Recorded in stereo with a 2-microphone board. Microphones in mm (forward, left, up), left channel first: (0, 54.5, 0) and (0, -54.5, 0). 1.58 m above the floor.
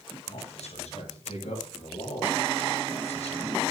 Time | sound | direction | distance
0.3 | a man speaking | 80° left | 9.5 m